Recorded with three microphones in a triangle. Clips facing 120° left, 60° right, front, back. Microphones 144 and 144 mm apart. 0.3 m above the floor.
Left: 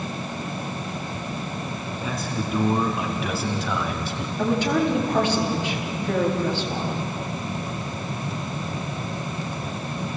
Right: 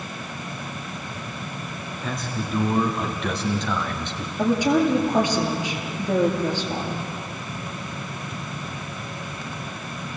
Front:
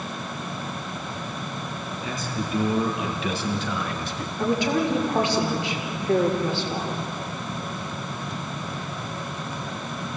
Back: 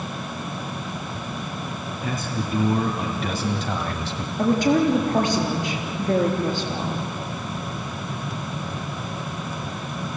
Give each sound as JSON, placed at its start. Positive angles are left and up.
{"t": 2.0, "sound": "a man speaking", "azimuth_deg": -155, "distance_m": 3.5}
{"t": 4.4, "sound": "a woman speaking", "azimuth_deg": -135, "distance_m": 6.0}